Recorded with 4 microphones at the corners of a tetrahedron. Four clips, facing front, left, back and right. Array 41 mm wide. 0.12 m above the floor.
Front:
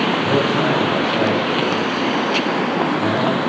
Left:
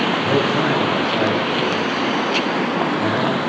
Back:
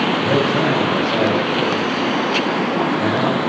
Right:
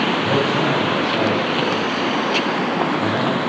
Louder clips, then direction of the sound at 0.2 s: Even, even; straight behind.